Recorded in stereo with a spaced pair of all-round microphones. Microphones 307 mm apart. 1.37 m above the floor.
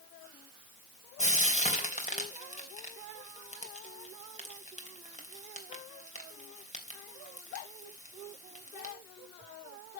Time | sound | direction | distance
1.2 | frying | 25° left (ahead or behind) | 3 m